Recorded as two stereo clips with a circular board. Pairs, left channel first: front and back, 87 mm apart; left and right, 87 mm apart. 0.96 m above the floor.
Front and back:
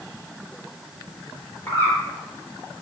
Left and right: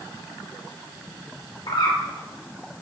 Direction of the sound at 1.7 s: 65° left.